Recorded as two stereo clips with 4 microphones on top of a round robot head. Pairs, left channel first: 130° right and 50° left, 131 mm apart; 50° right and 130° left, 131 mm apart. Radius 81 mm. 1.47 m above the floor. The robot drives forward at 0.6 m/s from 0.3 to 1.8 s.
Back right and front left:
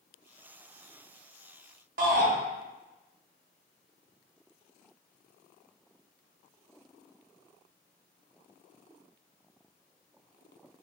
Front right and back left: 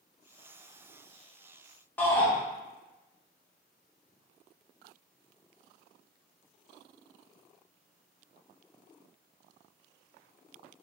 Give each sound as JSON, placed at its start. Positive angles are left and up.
{"t": 2.0, "sound": "a shout", "azimuth_deg": 30, "distance_m": 0.7}